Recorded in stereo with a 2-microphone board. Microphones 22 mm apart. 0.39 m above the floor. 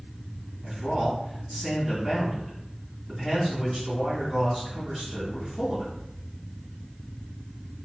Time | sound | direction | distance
0.6 | a man speaking | 5° right (ahead or behind) | 1.9 m